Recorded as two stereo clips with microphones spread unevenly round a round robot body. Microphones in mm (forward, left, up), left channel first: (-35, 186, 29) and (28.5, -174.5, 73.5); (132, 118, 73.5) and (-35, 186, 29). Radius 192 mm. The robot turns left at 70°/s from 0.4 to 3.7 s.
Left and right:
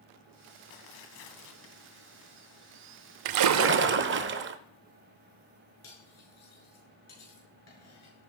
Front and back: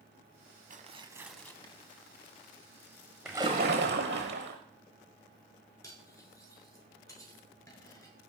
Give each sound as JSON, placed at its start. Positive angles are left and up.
{"t": 0.7, "sound": "tearing paper", "azimuth_deg": 110, "distance_m": 2.0}
{"t": 3.2, "sound": "a splash", "azimuth_deg": -105, "distance_m": 0.6}
{"t": 5.8, "sound": "cutlery clinking", "azimuth_deg": 50, "distance_m": 6.5}